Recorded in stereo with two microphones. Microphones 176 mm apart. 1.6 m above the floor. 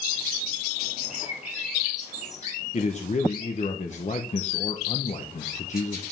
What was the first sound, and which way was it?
A bird, 40° left (ahead or behind).